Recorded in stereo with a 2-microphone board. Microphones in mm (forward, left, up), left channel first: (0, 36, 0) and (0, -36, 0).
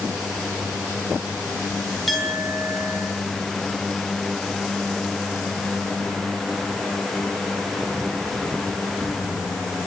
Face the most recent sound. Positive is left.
turn(degrees=0)  # may be behind; listen again after turning